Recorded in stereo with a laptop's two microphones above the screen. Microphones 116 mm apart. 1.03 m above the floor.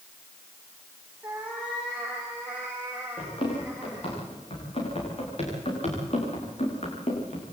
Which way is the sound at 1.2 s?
10° right (ahead or behind).